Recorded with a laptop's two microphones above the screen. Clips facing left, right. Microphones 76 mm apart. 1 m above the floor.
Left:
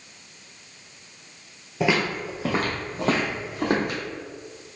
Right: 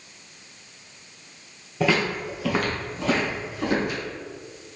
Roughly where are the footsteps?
Centre.